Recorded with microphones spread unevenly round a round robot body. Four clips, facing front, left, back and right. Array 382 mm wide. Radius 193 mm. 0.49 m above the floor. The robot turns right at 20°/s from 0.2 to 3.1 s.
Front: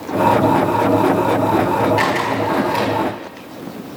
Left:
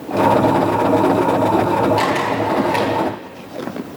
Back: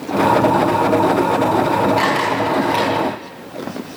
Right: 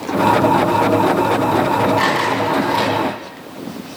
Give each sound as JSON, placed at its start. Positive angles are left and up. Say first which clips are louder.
{"t": 2.0, "sound": "a camera shutter", "louder": "right 1 dB, back 1 dB", "azimuth_deg": 100, "distance_m": 10.0}